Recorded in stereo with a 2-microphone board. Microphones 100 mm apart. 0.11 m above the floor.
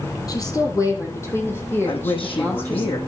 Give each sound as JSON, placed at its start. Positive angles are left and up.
{"t": 0.3, "sound": "a woman speaking", "side_deg": 40, "distance_m": 4.0}
{"t": 1.9, "sound": "a woman speaking", "side_deg": 60, "distance_m": 5.5}